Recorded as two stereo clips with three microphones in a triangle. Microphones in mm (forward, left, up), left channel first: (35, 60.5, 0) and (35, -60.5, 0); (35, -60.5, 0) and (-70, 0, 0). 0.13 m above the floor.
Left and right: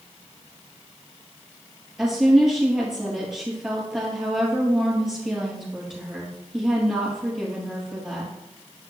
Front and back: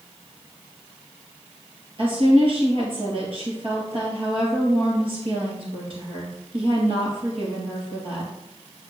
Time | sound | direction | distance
2.0 | a woman speaking | 175° right | 3.5 m